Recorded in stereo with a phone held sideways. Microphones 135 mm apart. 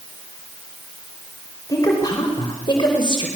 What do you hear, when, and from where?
1.7 s a woman speaking: 30° left (ahead or behind), 4 m; by 3.3 s 40° left (ahead or behind), 4 m